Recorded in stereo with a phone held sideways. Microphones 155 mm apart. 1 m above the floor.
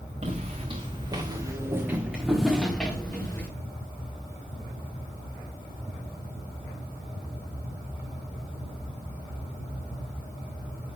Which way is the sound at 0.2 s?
45° right (ahead or behind).